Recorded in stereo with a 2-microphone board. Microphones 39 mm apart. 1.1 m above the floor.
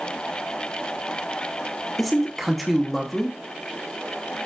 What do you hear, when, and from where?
2.0 s a man speaking: centre (ahead or behind), 0.9 m